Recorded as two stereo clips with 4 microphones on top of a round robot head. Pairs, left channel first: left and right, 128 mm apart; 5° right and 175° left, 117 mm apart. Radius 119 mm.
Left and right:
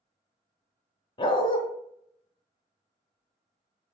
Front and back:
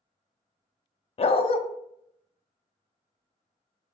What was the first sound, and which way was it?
A dog barking, 30° left.